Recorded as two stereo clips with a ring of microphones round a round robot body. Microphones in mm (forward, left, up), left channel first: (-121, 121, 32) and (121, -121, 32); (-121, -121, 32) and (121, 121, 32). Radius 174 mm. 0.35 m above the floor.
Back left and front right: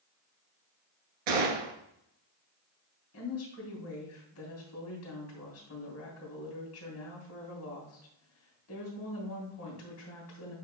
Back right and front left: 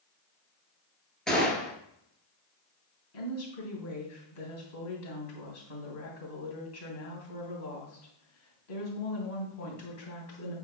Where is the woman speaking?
Straight behind, 3 m.